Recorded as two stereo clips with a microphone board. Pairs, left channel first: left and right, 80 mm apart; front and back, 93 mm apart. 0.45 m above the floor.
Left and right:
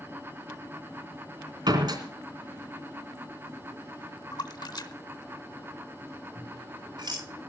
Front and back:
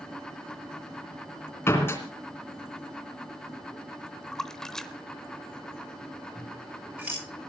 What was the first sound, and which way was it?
A door slam, 65° right.